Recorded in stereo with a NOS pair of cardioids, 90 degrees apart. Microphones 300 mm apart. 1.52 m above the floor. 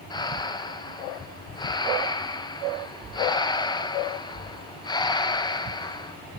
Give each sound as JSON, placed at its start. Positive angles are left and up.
{"t": 0.1, "sound": "breathing", "azimuth_deg": 15, "distance_m": 1.2}